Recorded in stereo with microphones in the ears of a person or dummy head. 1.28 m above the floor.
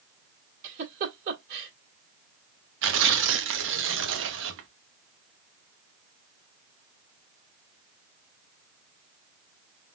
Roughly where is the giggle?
Right.